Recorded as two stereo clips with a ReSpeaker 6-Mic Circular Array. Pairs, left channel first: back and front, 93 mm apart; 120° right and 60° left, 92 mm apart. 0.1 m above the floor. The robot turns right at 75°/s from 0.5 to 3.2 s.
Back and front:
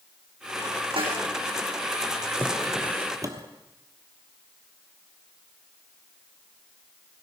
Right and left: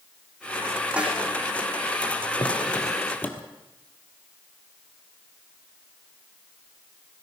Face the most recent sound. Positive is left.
turn(degrees=-50)